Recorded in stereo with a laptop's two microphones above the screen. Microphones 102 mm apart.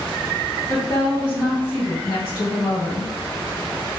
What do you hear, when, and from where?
0.7 s a woman speaking: 50° left (ahead or behind), 1.5 m